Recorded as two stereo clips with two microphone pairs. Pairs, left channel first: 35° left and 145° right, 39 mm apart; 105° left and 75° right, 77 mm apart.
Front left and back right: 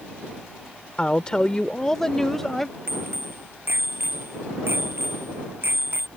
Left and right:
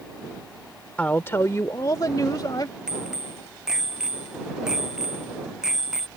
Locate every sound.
1.0 s a woman speaking: 50° left; by 2.8 s 120° left
2.9 s a bicycle bell: 160° right